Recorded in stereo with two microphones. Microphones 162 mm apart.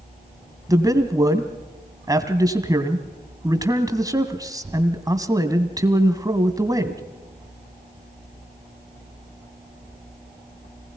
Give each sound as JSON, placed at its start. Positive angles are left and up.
{"t": 0.7, "sound": "a man speaking", "side_deg": -20, "distance_m": 1.7}